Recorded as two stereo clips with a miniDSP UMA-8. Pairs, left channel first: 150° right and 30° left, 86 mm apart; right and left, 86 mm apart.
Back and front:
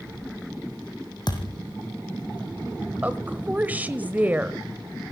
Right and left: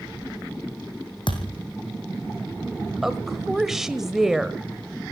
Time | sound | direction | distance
1.3 | a thud | 115° right | 3 m
3.0 | a woman speaking | 10° left | 1.1 m